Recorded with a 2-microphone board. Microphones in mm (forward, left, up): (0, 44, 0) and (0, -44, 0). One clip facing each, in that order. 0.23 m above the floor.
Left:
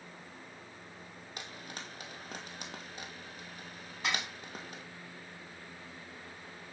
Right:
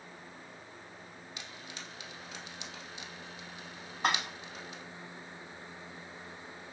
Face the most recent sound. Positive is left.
turn(degrees=-45)  # may be behind; listen again after turning